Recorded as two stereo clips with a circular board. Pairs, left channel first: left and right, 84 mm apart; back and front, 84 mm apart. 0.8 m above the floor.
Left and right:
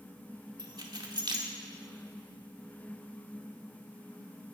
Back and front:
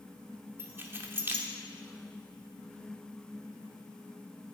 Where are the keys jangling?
60° right, 1.5 m.